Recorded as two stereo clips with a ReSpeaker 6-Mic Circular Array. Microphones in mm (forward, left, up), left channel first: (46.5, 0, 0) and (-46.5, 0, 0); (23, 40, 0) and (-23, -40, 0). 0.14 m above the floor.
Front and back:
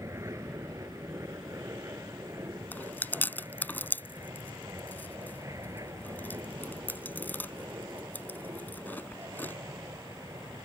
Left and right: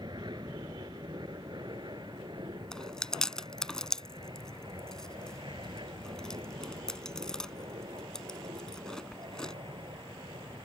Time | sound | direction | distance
0.0 | an aircraft | 130° right | ?
2.7 | chewing | 10° right | ?